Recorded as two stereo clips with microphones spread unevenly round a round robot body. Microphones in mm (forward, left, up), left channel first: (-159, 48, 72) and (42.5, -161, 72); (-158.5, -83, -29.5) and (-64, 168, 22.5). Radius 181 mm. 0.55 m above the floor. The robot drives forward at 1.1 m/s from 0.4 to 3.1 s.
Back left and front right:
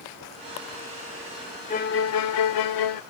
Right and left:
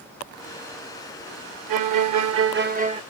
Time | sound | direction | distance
1.7 | a violin | 65° left | ?